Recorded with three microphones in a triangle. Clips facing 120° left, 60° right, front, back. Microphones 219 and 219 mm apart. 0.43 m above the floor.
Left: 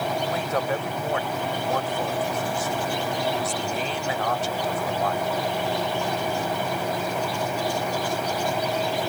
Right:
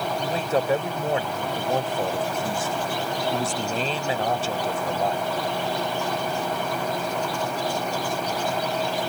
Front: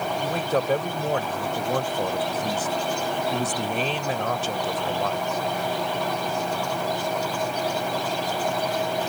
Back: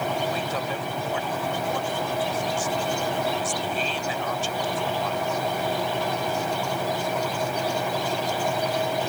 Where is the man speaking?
5° right.